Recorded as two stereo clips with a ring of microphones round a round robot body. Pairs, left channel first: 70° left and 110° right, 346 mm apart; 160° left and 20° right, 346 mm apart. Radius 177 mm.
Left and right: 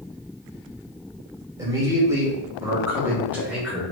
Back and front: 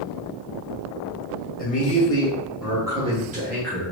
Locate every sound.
1.6 s a man speaking: straight behind, 1.2 m; by 3.9 s 25° right, 1.3 m